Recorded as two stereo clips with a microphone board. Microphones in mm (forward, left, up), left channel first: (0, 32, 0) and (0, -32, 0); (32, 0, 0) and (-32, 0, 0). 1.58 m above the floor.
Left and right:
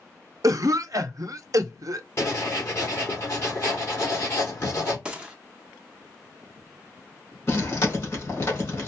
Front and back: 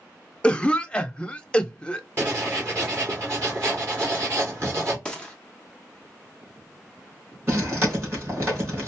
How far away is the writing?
About 2 m.